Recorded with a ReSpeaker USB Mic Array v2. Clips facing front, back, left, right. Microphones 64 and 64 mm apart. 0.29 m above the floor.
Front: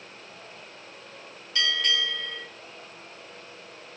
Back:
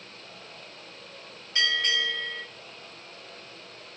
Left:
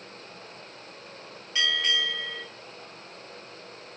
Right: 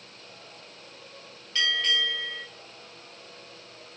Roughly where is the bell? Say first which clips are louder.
Even, even; behind left.